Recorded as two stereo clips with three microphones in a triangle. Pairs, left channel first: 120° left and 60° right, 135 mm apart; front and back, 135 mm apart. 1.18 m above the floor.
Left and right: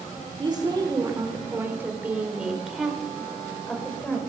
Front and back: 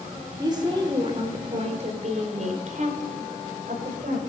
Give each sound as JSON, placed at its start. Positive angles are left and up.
{"t": 0.4, "sound": "a woman speaking", "azimuth_deg": -115, "distance_m": 3.5}